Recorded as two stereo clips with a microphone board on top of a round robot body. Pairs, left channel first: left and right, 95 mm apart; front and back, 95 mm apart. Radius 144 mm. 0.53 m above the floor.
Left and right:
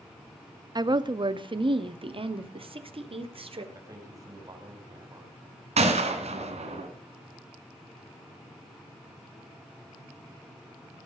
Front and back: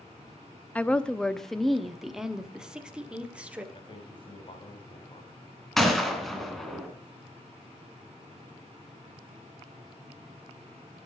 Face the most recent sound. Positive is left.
turn(degrees=-90)